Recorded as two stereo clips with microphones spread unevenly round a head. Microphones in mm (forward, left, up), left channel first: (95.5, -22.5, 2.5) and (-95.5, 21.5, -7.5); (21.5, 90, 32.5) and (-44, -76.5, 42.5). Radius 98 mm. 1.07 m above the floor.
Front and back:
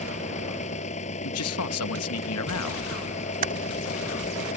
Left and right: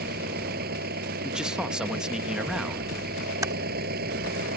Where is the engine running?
70° right.